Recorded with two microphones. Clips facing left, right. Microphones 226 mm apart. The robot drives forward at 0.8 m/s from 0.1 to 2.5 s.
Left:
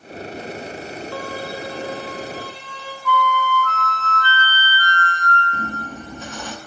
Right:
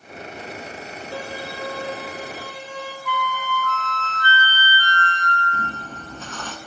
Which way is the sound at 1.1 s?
25° right (ahead or behind).